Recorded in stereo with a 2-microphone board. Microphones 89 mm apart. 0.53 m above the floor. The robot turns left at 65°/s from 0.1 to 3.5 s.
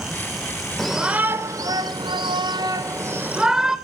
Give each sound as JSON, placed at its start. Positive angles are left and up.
{"t": 0.8, "sound": "a shout", "azimuth_deg": 5, "distance_m": 1.9}